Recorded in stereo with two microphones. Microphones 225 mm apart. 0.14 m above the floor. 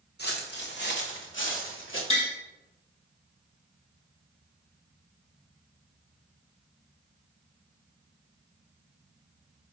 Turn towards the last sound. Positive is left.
turn(degrees=65)  # may be behind; listen again after turning